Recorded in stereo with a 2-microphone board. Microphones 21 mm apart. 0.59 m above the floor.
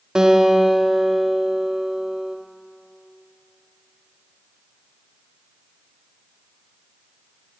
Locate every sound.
0.1 s a guitar: 35° right (ahead or behind), 1.0 m